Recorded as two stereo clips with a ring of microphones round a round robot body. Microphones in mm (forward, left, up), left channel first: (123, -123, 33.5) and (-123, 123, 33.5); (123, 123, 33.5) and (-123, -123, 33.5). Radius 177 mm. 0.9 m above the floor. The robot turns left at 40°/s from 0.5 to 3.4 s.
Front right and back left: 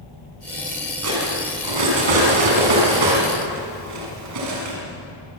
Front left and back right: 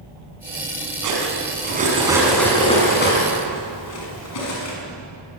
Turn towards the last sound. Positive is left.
turn(degrees=90)